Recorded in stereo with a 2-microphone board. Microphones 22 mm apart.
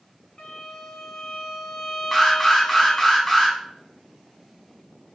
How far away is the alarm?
About 1.3 m.